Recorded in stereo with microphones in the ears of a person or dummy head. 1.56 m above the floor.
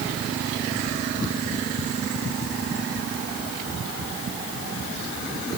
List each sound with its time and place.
Only background noise.